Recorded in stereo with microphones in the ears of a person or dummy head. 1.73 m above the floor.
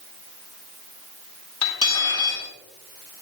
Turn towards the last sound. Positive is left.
turn(degrees=25)  # may be behind; listen again after turning